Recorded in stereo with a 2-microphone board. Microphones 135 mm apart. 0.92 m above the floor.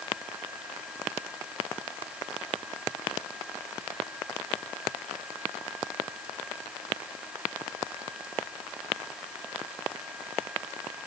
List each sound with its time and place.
Only background noise.